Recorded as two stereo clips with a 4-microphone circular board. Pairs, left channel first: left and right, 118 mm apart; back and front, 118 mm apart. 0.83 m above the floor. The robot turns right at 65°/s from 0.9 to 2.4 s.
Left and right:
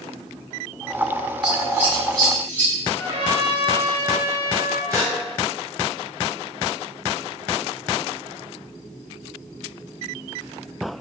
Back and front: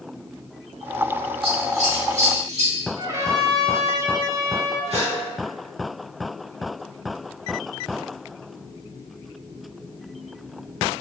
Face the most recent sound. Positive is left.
turn(degrees=-25)